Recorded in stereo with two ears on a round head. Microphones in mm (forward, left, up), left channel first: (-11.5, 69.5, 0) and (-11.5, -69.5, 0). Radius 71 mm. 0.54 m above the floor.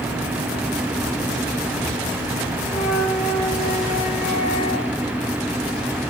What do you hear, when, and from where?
2.7 s a flute: 40° left (ahead or behind), 8 m